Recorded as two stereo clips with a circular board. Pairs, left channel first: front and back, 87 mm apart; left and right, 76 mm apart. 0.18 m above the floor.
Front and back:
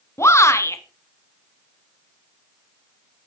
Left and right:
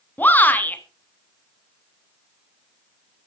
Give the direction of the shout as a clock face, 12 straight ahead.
11 o'clock.